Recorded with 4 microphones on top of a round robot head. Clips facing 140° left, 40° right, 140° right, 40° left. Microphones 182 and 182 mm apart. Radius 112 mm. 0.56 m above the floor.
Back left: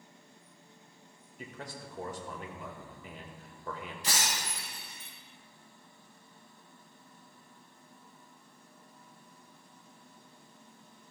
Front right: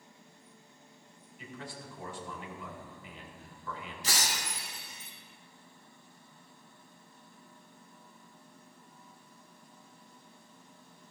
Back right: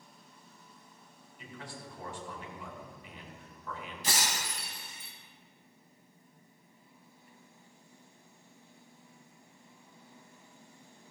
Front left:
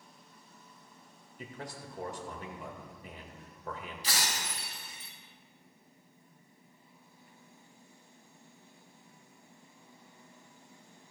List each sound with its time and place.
1.4 s a man speaking: 90° left, 1.9 m
4.0 s breaking glass: 175° left, 2.5 m